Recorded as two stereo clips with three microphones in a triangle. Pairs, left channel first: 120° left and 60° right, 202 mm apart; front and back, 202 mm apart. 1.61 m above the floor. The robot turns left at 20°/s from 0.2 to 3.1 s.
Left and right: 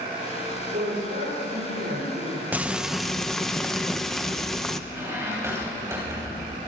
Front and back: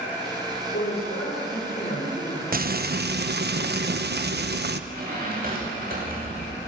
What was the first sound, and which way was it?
A man speaking, 25° right.